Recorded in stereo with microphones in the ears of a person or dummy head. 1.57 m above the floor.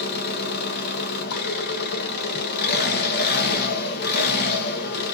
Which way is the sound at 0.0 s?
55° left (ahead or behind).